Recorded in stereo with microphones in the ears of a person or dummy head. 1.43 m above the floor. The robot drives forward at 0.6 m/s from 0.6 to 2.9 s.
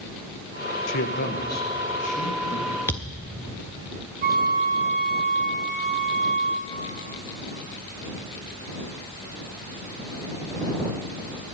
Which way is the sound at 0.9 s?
70° left (ahead or behind).